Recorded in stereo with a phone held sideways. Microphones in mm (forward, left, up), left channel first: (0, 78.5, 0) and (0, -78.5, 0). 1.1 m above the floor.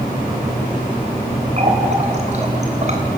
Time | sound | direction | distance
1.6 | a running tap | 45° right (ahead or behind) | 3 m